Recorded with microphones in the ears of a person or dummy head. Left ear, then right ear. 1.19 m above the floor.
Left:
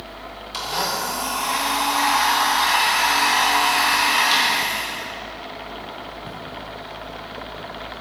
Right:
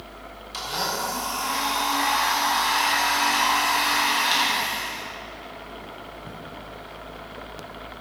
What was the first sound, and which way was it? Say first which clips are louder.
A blender: left 3 dB; 15° left (ahead or behind).